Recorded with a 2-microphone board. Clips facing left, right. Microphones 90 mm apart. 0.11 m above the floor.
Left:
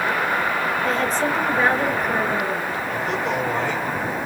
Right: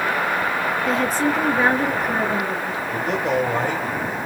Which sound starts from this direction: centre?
A woman speaking, at 0.8 s.